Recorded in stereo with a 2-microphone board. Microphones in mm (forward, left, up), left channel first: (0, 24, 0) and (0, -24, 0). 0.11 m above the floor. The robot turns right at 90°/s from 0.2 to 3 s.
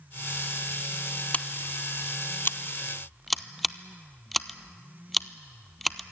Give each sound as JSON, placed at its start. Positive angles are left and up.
{"t": 1.3, "sound": "scissors", "side_deg": 25, "distance_m": 0.6}